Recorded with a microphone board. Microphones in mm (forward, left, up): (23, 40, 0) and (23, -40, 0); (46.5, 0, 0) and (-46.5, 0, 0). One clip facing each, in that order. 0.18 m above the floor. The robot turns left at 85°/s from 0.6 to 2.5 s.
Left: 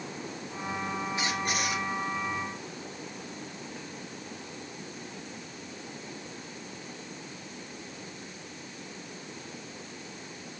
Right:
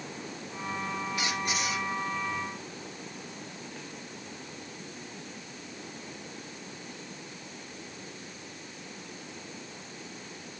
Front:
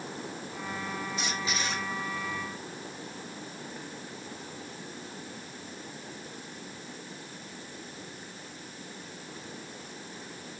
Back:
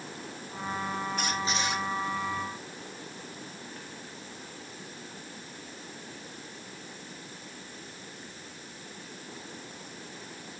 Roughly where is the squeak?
Behind left.